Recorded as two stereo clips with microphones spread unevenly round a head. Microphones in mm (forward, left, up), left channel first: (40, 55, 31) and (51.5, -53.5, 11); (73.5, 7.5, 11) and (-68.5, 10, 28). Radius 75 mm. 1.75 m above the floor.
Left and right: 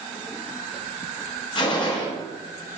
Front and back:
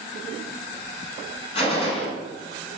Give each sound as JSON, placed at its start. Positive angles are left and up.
{"t": 1.6, "sound": "a gunshot", "azimuth_deg": 55, "distance_m": 6.5}